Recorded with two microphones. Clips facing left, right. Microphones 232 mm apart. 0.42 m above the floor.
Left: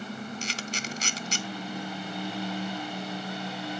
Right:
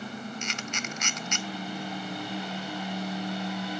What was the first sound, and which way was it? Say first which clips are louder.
A camera shutter: even; 35° left (ahead or behind).